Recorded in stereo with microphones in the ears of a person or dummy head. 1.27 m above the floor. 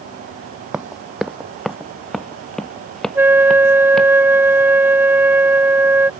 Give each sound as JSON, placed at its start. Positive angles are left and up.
{"t": 0.7, "sound": "running footsteps", "side_deg": -10}
{"t": 3.1, "sound": "a flute", "side_deg": -15}